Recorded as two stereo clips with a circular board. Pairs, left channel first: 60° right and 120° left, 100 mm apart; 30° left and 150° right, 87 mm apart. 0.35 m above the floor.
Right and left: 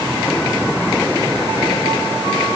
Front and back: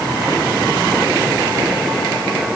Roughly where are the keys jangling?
I don't hear keys jangling.